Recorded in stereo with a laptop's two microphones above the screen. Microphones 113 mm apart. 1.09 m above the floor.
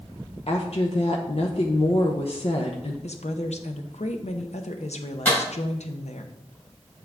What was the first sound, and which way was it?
A woman speaking, 60° left (ahead or behind).